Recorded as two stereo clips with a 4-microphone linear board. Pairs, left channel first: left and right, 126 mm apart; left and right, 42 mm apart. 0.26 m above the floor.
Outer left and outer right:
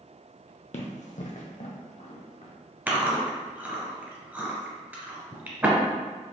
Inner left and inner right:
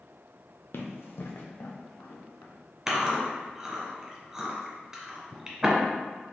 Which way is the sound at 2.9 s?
15° right (ahead or behind).